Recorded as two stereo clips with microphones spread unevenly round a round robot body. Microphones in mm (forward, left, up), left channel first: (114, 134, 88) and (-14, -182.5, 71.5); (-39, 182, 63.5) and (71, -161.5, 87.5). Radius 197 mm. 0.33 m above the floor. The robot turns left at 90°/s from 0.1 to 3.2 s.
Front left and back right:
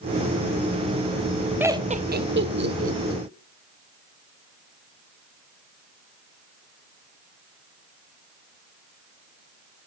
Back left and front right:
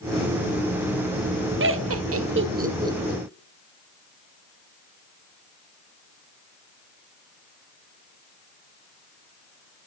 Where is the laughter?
35° right, 1.0 m; by 3.2 s straight behind, 1.0 m.